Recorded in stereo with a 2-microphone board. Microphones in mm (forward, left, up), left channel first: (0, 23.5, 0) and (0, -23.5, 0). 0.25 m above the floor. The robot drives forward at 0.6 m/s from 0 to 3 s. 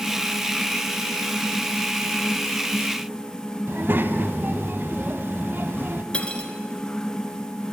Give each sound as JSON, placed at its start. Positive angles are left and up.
{"t": 3.7, "sound": "a child speaking", "side_deg": -50, "distance_m": 1.1}
{"t": 6.1, "sound": "cutlery clinking", "side_deg": 25, "distance_m": 1.8}